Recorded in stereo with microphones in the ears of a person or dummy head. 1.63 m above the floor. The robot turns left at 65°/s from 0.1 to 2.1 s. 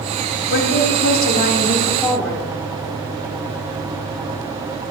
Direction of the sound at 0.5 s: 115° left.